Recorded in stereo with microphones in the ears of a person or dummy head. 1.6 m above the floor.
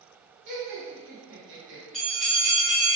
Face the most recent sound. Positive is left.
turn(degrees=0)  # may be behind; listen again after turning